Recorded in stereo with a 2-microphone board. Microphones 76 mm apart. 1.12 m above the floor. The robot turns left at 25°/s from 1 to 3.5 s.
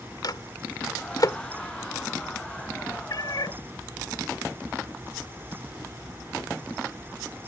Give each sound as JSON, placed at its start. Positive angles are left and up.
{"t": 0.2, "sound": "a microwave", "side_deg": 60}
{"t": 3.1, "sound": "a cat meowing", "side_deg": 60}